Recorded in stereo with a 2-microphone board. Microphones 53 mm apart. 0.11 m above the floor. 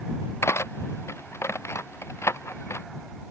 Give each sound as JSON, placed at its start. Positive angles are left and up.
{"t": 0.4, "sound": "cutlery clinking", "side_deg": 60}